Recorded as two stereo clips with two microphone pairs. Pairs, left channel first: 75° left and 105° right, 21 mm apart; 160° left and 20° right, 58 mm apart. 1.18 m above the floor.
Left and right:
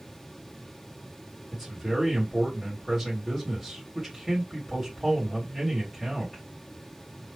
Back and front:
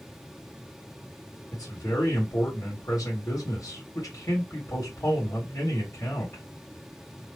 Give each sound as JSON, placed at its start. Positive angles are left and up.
{"t": 1.5, "sound": "a man speaking", "azimuth_deg": 180, "distance_m": 2.0}